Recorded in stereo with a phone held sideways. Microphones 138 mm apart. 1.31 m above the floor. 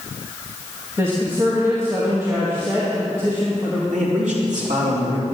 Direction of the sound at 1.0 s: 20° right (ahead or behind).